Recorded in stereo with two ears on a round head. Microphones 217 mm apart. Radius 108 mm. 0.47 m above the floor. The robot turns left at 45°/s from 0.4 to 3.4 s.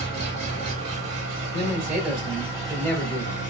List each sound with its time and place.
0.0 s an engine running: 80° right, 3.5 m; by 3.5 s 145° left, 3.5 m
1.5 s a man speaking: 125° right, 3 m; by 3.4 s 150° left, 3 m